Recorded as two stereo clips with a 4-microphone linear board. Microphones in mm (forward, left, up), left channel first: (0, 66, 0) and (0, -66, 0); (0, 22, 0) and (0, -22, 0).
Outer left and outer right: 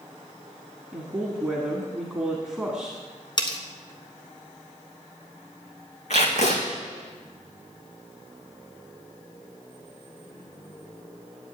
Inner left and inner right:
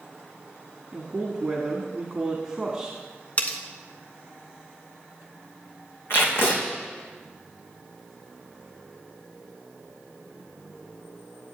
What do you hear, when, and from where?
0.9 s a woman speaking: 5° right (ahead or behind), 1.7 m
3.4 s cutlery clinking: 35° left (ahead or behind), 1.3 m
6.1 s tape being pulled: 65° left (ahead or behind), 2.5 m